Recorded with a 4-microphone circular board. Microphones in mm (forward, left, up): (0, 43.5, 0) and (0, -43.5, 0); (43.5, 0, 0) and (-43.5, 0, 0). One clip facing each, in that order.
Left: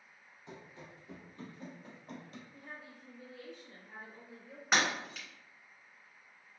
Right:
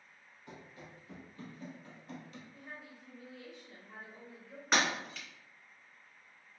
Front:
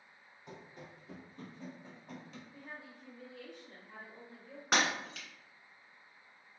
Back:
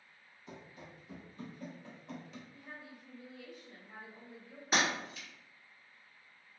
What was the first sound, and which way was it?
Running footsteps, 25° left.